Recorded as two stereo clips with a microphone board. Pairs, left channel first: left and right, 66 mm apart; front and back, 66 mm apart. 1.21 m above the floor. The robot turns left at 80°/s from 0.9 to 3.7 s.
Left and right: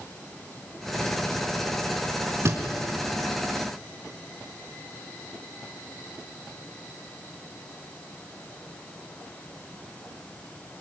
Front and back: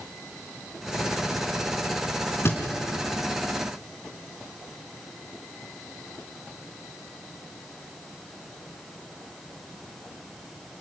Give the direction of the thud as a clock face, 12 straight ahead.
2 o'clock.